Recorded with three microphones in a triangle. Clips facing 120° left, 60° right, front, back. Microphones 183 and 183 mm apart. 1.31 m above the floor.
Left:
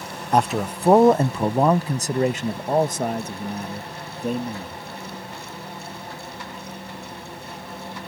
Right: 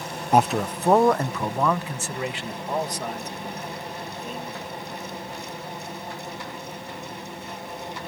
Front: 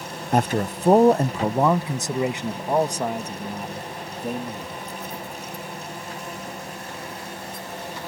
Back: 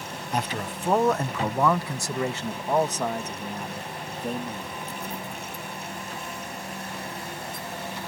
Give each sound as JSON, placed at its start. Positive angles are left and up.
{"t": 0.3, "sound": "a man speaking", "azimuth_deg": 20}